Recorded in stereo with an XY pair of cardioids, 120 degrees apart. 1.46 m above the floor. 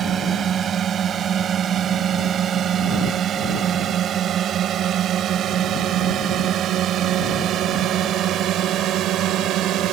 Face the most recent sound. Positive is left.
turn(degrees=-70)